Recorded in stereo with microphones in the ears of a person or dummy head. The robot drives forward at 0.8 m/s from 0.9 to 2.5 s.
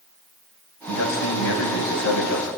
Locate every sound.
0.9 s a man speaking: 75° left (ahead or behind), 7.5 m; by 2.5 s 85° left, 7 m